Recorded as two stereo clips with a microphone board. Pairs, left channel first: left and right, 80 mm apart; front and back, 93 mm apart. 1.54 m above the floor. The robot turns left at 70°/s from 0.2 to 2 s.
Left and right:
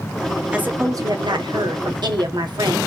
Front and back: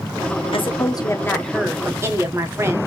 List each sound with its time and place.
0.5 s a woman speaking: 15° right, 1.1 m; by 2.8 s 120° right, 1.1 m